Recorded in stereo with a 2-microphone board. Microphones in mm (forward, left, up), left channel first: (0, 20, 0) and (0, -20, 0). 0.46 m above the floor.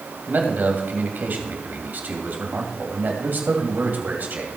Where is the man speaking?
50° right (ahead or behind), 2.5 m.